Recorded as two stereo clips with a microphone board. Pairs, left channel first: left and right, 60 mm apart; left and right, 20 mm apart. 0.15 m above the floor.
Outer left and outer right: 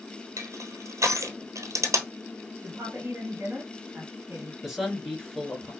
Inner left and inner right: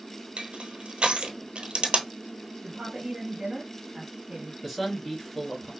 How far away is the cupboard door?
I don't hear a cupboard door.